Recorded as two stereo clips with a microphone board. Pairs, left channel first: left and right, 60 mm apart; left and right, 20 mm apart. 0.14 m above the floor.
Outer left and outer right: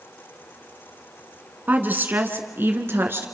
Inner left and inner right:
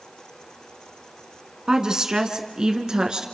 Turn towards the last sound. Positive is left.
turn(degrees=-40)  # may be behind; listen again after turning